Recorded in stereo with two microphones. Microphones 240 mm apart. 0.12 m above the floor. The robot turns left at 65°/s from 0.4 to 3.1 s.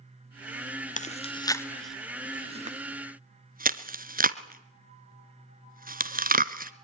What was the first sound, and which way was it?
Chewing, 30° left (ahead or behind).